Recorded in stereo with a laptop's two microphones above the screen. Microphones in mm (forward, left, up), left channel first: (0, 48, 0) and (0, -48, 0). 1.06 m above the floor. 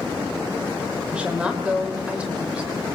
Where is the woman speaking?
10° right (ahead or behind), 4 m.